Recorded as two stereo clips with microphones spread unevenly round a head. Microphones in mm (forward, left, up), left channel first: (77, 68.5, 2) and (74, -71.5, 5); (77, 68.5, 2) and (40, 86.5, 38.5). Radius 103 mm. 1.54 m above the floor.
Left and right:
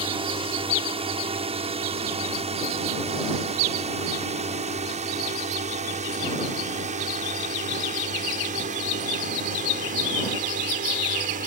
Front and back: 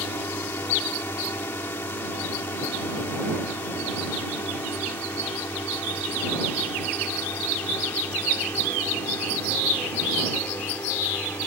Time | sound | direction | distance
0.0 | a drone | 45° right | ?